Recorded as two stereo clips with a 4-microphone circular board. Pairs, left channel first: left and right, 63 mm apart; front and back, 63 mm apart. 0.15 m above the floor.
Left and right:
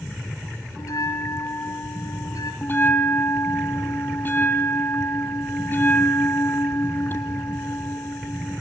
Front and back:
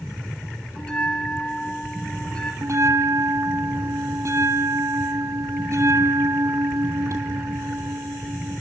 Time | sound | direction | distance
0.8 | a bell | 75° left | 3 m
2.6 | a bell | 145° left | 1.2 m